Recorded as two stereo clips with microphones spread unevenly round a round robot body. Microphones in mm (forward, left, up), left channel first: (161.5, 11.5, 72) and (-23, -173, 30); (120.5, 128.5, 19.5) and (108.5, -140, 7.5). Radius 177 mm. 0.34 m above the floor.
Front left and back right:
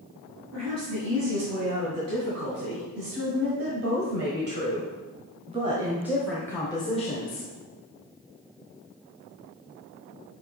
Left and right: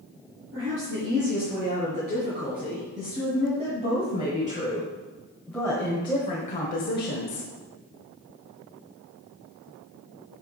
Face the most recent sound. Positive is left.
turn(degrees=90)